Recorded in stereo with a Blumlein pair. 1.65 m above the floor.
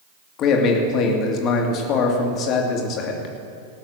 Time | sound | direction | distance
0.4 | a man speaking | 35° left | 2 m